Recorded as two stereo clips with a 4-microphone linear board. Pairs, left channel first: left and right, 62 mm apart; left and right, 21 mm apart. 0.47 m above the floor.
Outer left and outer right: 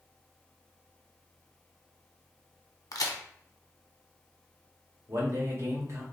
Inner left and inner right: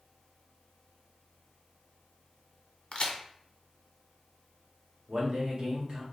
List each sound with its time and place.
2.9 s a crack: 65° left (ahead or behind), 0.6 m
5.1 s a man speaking: 45° right (ahead or behind), 1.2 m